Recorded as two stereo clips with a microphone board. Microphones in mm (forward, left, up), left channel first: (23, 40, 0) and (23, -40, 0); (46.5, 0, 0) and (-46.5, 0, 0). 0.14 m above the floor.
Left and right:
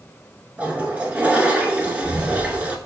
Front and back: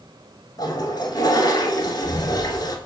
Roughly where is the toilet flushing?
Ahead right.